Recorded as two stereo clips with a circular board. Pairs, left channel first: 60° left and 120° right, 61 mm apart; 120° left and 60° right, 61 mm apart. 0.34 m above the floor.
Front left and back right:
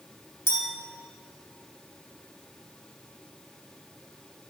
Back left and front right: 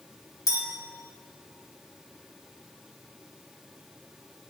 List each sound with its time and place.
0.5 s a clink: 105° left, 2.5 m